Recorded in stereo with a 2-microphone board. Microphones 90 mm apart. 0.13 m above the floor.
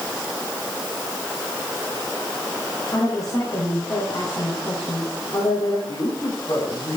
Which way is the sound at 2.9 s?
40° left (ahead or behind).